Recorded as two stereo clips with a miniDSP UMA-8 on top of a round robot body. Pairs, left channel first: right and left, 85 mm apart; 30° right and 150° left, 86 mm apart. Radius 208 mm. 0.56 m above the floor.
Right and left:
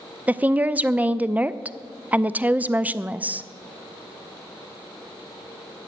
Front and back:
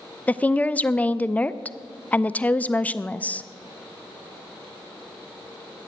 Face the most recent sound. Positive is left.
turn(degrees=30)